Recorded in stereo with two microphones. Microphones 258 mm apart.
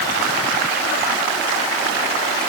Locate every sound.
Only background noise.